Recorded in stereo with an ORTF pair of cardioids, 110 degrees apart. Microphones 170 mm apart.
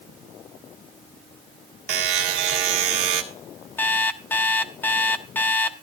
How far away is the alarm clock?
About 0.7 m.